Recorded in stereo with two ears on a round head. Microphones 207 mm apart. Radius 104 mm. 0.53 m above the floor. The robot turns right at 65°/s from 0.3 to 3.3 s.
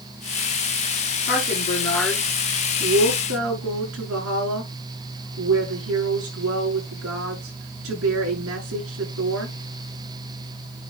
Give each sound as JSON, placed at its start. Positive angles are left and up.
{"t": 1.3, "sound": "a woman speaking", "azimuth_deg": 125, "distance_m": 7.0}